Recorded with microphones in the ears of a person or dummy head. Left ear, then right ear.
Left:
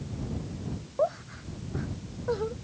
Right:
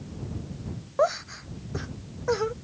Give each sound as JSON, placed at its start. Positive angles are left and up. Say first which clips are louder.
{"t": 1.0, "sound": "laughter", "louder": "right 4 dB", "side_deg": -55}